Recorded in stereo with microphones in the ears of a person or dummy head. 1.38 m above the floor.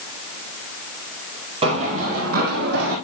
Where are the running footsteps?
30° right (ahead or behind), 2.5 m; by 3.0 s 60° right (ahead or behind), 3.5 m.